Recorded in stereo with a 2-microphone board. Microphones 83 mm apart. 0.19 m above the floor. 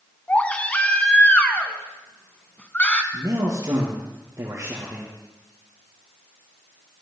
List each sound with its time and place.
0.3 s a baby crying: 15° left (ahead or behind), 1.2 m
3.1 s a man speaking: 35° right (ahead or behind), 4 m